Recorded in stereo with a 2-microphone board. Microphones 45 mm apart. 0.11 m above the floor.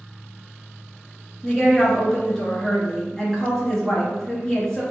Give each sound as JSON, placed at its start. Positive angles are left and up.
{"t": 1.4, "sound": "a woman speaking", "side_deg": 15, "distance_m": 1.6}